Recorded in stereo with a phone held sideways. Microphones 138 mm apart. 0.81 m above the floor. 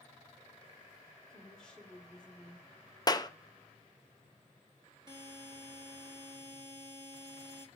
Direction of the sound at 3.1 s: 30° left (ahead or behind).